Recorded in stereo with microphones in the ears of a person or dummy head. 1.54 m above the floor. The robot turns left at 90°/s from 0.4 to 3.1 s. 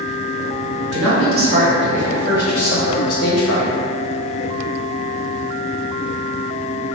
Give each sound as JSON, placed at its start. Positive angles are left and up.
{"t": 0.9, "sound": "a man speaking", "azimuth_deg": -75, "distance_m": 0.7}